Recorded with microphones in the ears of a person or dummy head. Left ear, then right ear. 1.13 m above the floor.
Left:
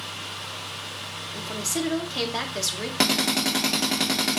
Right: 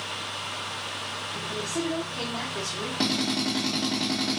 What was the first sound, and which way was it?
A woman speaking, 70° left (ahead or behind).